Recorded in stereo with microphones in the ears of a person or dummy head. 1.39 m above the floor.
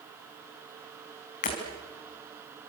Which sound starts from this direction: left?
Breaking glass, at 1.4 s.